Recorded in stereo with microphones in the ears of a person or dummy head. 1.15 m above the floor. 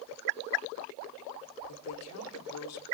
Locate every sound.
1.7 s a woman speaking: 85° left, 4 m; by 2.9 s 80° left, 3.5 m